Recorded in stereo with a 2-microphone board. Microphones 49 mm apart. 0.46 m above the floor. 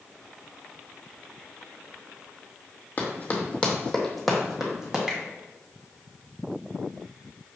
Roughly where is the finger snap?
Centre.